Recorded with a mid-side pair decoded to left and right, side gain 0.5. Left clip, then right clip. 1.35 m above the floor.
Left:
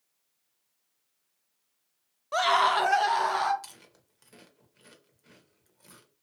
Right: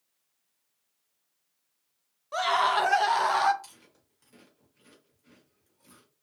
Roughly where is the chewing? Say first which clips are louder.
Left 3 dB; ahead left.